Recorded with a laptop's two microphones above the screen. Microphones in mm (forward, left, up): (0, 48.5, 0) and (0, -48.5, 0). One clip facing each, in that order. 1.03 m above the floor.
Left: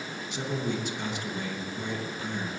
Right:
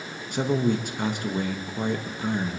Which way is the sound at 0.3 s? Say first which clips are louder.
Right 8 dB; 50° right (ahead or behind).